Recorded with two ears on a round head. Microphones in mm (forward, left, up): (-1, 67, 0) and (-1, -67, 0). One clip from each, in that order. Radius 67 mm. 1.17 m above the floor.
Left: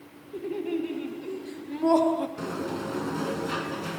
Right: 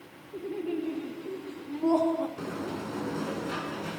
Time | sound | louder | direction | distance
0.3 | laughter | left 3 dB | 80° left | 4 m
2.4 | a sliding door | left 3 dB | 20° left (ahead or behind) | 3 m